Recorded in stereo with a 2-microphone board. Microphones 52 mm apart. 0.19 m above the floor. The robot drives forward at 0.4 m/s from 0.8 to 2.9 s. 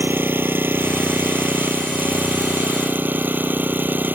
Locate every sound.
0.0 s an engine running: 50° right (ahead or behind); by 4.2 s 40° right (ahead or behind)